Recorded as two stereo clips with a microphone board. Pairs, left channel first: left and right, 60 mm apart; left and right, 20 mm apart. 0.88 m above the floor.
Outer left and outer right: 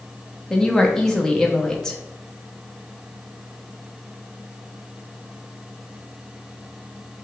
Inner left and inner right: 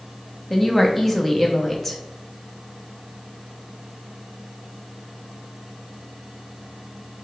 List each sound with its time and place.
0.5 s a woman speaking: 10° left (ahead or behind), 0.9 m